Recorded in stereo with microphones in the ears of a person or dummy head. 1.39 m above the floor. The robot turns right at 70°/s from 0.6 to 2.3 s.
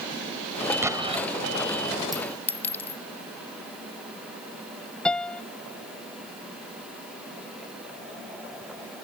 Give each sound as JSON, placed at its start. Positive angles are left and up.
{"t": 0.8, "sound": "an explosion", "azimuth_deg": -165}
{"t": 2.1, "sound": "a clink", "side_deg": 0}
{"t": 5.0, "sound": "a piano", "side_deg": 5}